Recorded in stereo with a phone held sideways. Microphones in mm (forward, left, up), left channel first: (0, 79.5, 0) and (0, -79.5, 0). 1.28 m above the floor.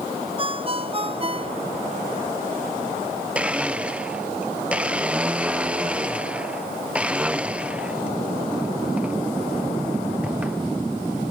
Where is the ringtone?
35° right (ahead or behind).